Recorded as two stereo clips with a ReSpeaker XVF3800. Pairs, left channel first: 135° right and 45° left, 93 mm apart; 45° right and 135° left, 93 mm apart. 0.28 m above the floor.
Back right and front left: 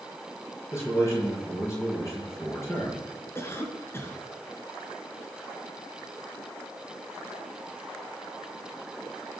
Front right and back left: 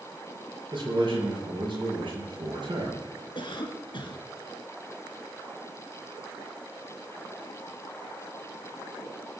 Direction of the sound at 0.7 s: 165° left.